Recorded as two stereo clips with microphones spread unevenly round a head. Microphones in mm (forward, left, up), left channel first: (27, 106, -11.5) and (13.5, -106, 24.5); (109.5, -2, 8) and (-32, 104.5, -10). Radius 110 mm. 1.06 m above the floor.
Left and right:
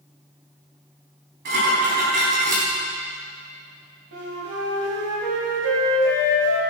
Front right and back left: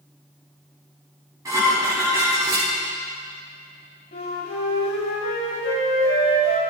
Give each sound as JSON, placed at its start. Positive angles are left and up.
{"t": 1.4, "sound": "dishes clattering", "azimuth_deg": -140, "distance_m": 5.0}
{"t": 4.1, "sound": "a flute", "azimuth_deg": -85, "distance_m": 3.0}